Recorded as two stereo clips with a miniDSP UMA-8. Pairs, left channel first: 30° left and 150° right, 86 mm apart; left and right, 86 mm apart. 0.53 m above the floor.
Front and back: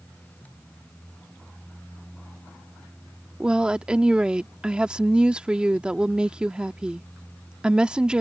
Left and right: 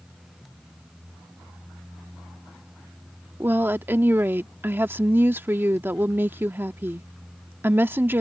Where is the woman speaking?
85° right.